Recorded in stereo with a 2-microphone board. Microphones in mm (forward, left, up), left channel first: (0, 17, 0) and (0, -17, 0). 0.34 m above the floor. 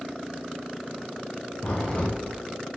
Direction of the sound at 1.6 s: 50° left (ahead or behind).